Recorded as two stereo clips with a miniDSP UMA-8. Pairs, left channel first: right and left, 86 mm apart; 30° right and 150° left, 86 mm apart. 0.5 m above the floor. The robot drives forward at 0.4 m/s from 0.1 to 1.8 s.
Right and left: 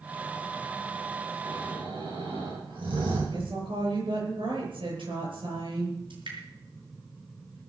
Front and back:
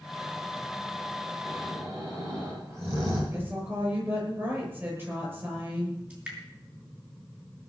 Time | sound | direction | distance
1.4 | snoring | 95° left | 8 m
3.3 | a woman speaking | 85° left | 10 m
6.1 | dripping | 80° left | 6 m